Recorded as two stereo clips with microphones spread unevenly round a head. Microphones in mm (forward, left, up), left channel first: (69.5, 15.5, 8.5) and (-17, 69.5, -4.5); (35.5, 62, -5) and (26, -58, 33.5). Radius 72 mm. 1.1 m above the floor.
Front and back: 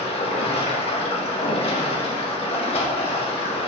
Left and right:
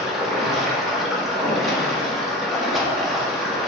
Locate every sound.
0.0 s running water: 5° right, 1.8 m